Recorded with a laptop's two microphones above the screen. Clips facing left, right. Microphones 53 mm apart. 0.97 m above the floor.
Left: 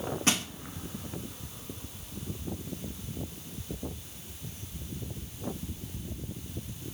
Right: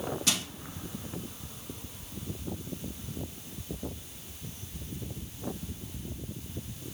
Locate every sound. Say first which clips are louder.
0.3 s crushing: left 6 dB; 35° left (ahead or behind), 1.3 m